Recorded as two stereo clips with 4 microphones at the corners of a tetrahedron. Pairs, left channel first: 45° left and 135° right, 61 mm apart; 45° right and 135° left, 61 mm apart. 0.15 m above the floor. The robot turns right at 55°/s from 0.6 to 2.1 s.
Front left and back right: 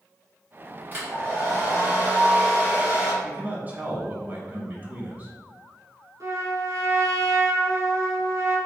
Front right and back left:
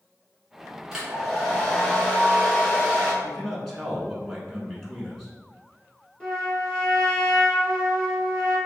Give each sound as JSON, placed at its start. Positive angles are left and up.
{"t": 0.9, "sound": "a hair dryer", "azimuth_deg": -155, "distance_m": 1.9}
{"t": 3.2, "sound": "a man speaking", "azimuth_deg": -125, "distance_m": 1.1}
{"t": 6.2, "sound": "a trumpet", "azimuth_deg": -125, "distance_m": 1.7}